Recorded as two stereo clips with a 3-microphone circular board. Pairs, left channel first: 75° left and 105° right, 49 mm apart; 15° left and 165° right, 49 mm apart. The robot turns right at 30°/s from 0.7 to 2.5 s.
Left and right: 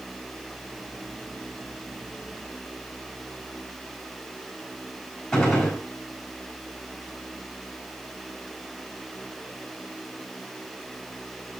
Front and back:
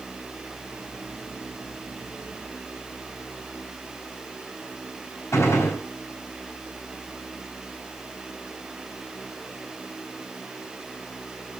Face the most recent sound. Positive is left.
turn(degrees=-10)